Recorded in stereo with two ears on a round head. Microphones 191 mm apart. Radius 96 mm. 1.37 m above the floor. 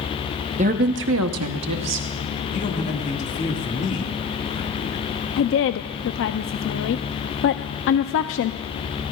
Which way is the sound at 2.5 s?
35° left (ahead or behind).